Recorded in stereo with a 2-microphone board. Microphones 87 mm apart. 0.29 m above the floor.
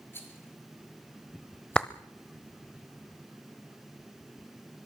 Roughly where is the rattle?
Left.